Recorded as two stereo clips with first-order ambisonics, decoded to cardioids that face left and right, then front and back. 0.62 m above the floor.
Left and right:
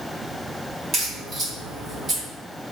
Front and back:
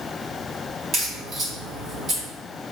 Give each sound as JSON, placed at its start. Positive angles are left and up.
{"t": 0.9, "sound": "a crack", "azimuth_deg": -140, "distance_m": 1.5}